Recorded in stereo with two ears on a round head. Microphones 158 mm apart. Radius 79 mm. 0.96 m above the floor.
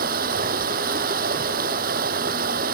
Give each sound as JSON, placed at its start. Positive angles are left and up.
{"t": 0.0, "sound": "running water", "side_deg": -55}